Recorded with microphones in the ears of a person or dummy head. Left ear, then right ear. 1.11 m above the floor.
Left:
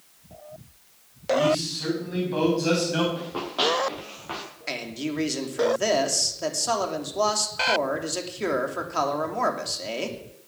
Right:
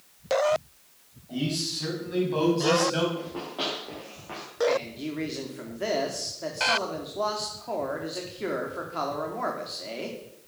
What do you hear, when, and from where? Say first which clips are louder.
1.3 s a man speaking: left 9 dB; centre (ahead or behind), 8.5 m; by 3.0 s 10° left (ahead or behind), 6.5 m
3.1 s running footsteps: left 5 dB; 25° left (ahead or behind), 6 m; by 4.5 s 40° left (ahead or behind), 6 m
4.7 s a man speaking: right 3 dB; 80° left, 3 m